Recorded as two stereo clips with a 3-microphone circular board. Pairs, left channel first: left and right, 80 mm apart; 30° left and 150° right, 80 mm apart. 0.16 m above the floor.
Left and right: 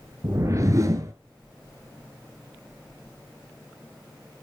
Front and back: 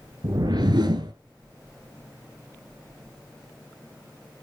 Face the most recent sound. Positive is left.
turn(degrees=-135)